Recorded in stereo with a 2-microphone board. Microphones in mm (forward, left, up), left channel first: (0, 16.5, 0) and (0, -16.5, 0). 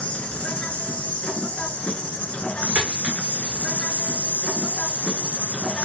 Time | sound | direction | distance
0.0 | an insect | 45° left (ahead or behind) | 1.6 m
2.8 | a dropped coin | 40° right (ahead or behind) | 6.5 m